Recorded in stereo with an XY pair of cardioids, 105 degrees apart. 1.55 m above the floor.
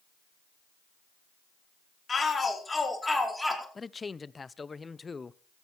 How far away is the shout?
About 4 m.